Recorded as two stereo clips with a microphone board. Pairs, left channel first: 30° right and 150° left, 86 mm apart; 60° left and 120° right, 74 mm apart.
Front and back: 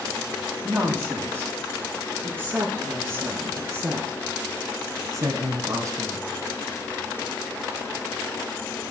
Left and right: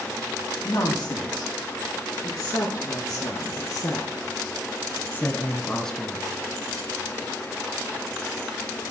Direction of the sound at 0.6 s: 85° left.